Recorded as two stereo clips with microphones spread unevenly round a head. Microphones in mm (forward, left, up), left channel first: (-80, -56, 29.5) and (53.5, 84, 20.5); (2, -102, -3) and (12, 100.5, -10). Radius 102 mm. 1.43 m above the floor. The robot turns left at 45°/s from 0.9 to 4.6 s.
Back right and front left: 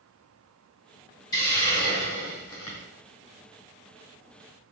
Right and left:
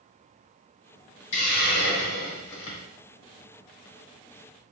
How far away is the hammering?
No hammering in this recording.